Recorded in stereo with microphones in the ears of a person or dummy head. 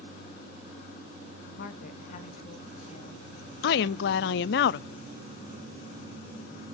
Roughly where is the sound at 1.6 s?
Left.